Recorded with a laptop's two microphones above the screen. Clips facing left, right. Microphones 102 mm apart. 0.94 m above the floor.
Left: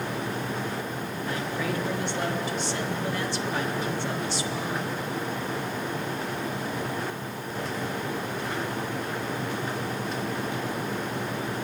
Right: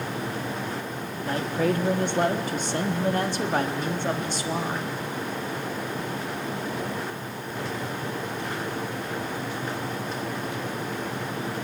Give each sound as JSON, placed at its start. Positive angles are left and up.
{"t": 1.2, "sound": "a man speaking", "side_deg": -55, "distance_m": 1.3}